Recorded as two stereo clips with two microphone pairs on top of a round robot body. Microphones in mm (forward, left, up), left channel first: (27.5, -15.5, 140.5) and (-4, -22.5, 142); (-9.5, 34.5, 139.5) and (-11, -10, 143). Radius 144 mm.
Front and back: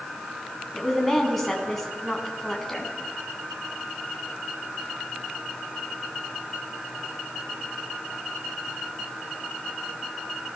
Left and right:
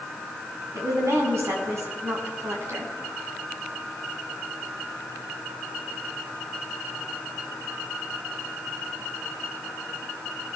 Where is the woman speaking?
70° right, 6.5 m.